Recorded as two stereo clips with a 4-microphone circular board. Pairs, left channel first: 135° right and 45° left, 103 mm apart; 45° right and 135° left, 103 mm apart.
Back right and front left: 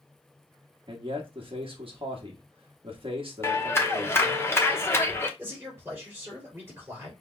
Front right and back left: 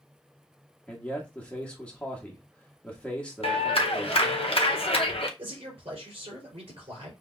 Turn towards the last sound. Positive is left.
turn(degrees=110)